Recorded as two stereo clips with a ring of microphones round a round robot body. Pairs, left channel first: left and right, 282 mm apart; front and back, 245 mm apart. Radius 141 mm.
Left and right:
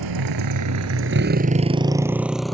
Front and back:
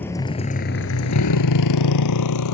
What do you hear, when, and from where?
0.0 s a motorcycle: 85° right; by 2.5 s straight ahead